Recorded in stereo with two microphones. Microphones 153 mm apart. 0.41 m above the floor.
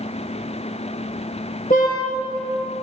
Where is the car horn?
60° left (ahead or behind), 3.5 m.